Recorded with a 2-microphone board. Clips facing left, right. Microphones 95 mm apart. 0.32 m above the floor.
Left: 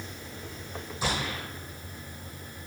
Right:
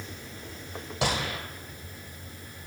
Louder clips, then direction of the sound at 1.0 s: Right 2 dB; 80° right.